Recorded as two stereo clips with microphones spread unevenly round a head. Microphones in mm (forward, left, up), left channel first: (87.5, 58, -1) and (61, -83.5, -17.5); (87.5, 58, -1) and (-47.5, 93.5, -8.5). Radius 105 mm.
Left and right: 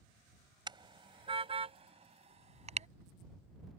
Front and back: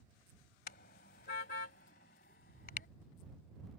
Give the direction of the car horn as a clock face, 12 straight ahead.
1 o'clock.